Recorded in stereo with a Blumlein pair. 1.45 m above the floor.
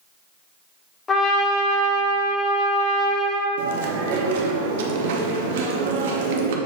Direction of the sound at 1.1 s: 20° left.